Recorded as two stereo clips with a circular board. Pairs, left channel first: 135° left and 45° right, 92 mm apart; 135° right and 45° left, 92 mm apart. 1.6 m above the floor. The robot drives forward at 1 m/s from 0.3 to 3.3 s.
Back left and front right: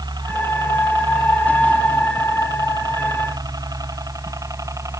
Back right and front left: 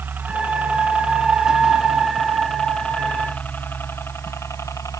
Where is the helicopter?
20° right; by 5.0 s 90° right.